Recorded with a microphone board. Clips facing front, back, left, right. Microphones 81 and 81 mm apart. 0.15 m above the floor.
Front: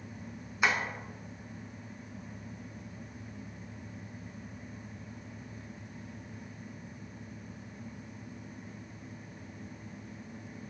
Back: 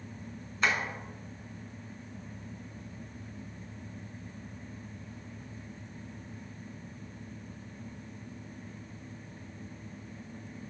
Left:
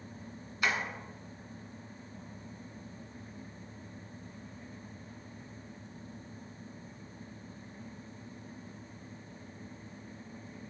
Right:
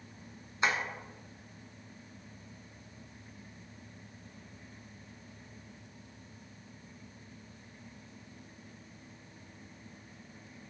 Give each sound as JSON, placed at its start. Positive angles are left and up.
{"t": 0.6, "sound": "tapping", "azimuth_deg": -65, "distance_m": 1.3}